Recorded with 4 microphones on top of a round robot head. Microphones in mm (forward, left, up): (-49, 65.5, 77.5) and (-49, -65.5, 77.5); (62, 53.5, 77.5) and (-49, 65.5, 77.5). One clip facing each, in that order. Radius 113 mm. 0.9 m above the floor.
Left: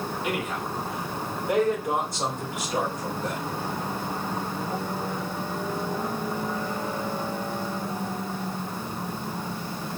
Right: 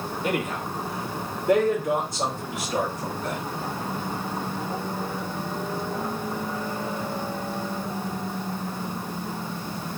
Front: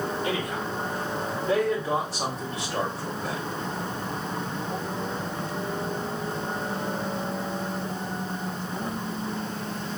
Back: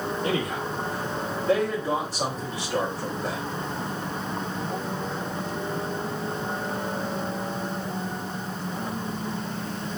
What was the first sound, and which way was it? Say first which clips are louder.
A man speaking: right 5 dB, back 2 dB; 135° right.